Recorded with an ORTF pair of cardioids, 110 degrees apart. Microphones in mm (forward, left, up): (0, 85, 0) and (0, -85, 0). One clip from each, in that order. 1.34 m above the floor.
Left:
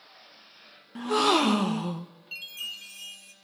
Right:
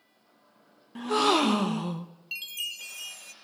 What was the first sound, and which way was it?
A gasp, straight ahead.